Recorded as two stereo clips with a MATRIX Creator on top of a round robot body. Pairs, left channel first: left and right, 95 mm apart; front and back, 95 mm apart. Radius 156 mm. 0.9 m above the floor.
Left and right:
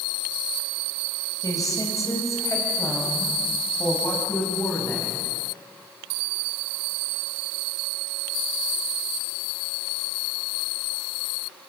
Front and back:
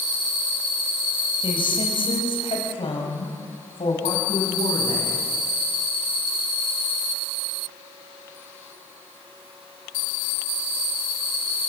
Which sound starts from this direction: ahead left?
A woman speaking, at 1.4 s.